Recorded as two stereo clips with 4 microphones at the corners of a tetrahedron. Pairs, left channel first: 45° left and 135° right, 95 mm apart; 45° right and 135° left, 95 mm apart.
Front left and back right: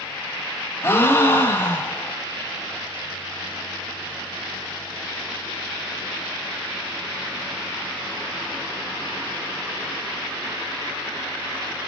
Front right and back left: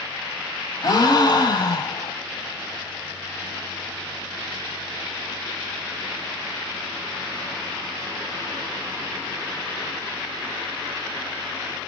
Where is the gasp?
15° right, 1.1 m.